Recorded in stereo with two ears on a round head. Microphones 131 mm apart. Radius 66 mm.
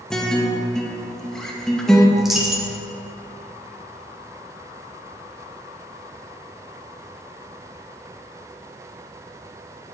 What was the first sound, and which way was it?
A guitar, 5° left (ahead or behind).